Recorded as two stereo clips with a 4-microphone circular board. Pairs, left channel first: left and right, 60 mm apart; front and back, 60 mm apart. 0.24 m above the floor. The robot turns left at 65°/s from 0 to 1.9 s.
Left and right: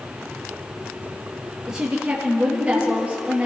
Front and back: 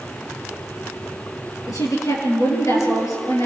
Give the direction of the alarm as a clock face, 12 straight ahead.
I don't hear an alarm.